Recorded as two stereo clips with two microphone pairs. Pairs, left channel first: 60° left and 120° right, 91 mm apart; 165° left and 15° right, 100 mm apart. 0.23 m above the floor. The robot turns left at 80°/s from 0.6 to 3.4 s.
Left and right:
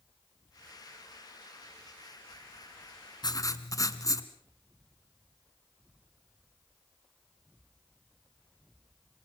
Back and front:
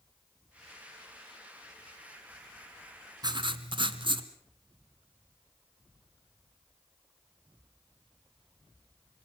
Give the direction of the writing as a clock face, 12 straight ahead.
11 o'clock.